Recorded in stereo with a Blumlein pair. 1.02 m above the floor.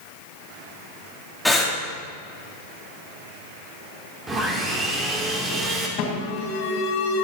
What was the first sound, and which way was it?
Breathing, 5° left.